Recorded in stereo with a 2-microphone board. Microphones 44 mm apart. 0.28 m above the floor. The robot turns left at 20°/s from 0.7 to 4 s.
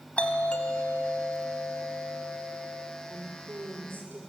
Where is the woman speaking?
70° right (ahead or behind), 5.5 m; by 4.2 s 55° right (ahead or behind), 5.5 m.